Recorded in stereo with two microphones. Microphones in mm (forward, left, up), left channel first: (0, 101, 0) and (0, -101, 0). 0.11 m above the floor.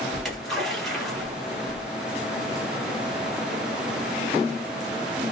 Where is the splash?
Centre (ahead or behind), 1.9 m.